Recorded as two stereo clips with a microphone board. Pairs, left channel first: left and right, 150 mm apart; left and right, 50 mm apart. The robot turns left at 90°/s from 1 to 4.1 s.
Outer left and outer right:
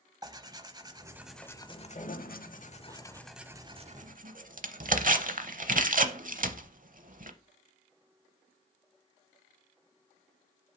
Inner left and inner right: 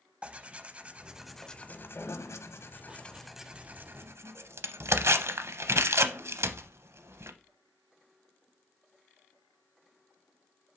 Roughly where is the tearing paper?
Right.